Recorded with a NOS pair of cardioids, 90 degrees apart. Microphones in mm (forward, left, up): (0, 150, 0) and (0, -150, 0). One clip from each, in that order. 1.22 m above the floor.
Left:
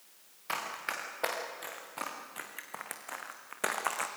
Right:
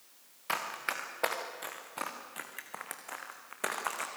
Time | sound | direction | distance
0.5 | running footsteps | 25° right | 5.5 m